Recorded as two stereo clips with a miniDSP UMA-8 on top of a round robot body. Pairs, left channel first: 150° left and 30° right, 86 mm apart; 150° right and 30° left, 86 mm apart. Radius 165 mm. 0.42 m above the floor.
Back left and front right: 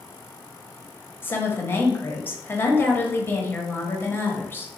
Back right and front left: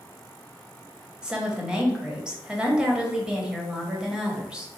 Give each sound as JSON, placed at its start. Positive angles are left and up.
{"t": 1.2, "sound": "a woman speaking", "azimuth_deg": 105, "distance_m": 1.5}